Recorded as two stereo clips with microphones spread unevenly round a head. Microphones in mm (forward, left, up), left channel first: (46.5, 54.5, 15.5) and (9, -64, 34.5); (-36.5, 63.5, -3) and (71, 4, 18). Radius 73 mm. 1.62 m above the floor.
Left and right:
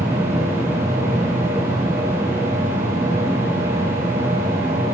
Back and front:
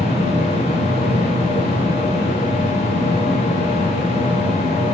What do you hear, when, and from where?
0.0 s a machine running: 170° right, 1.8 m